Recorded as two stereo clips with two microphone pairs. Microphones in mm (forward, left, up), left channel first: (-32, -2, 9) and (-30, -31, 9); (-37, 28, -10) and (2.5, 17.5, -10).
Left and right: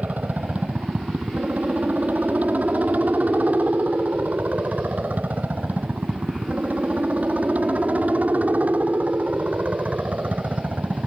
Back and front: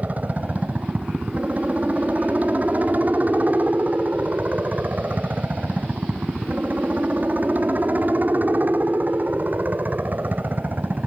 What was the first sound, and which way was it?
A helicopter, 65° right.